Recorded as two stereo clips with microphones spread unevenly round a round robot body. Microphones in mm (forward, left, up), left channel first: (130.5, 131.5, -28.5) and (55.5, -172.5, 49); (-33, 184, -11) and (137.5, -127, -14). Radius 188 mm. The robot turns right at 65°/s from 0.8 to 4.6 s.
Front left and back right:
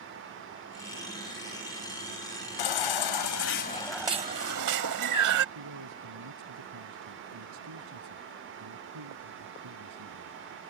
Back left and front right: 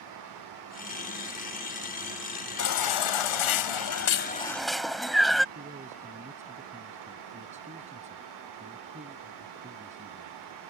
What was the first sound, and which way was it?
A baby crying, 75° left.